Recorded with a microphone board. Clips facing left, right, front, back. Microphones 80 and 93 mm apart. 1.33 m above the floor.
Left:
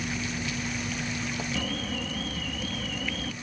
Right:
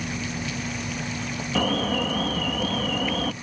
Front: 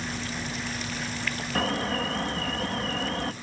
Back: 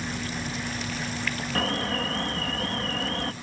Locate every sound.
0.0 s an insect: 100° right
1.6 s an alarm: 85° right